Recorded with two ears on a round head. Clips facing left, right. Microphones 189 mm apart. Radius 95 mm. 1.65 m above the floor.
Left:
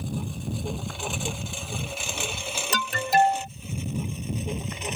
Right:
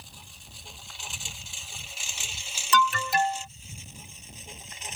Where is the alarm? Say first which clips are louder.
Left 2 dB; 35° left (ahead or behind).